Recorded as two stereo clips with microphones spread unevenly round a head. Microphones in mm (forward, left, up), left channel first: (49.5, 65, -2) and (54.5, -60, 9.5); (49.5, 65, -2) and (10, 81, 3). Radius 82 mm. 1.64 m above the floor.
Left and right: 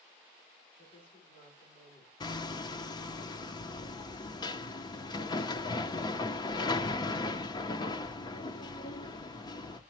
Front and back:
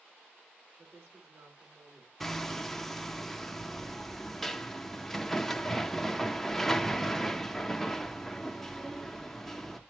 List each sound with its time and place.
0.8 s a woman speaking: 135° left, 3 m; by 2.1 s 130° left, 4.5 m
2.2 s hammering: 65° left, 0.7 m